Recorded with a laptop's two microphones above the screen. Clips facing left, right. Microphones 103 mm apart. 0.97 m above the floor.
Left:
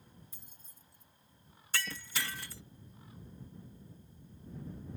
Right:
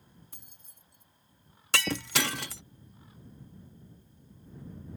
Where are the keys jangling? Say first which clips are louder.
Right 1 dB; 60° right (ahead or behind).